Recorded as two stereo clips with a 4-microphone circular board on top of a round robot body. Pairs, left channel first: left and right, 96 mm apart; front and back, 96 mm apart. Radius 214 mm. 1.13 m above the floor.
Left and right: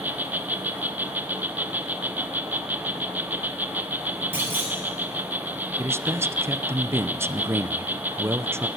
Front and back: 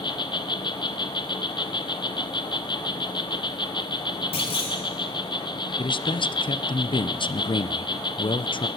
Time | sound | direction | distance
0.0 | an insect | 20° right | 1.5 m
4.3 | a clunk | 20° right | 5.5 m
5.8 | a man speaking | 25° right | 1.0 m